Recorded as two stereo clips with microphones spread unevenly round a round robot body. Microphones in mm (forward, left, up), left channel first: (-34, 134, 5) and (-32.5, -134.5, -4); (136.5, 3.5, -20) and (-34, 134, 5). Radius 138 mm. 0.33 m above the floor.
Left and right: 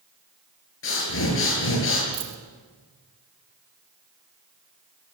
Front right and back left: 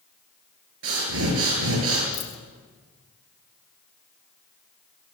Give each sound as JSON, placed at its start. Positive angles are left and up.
{"t": 0.8, "sound": "breathing", "azimuth_deg": 130, "distance_m": 8.0}
{"t": 2.1, "sound": "a dropped coin", "azimuth_deg": -65, "distance_m": 4.5}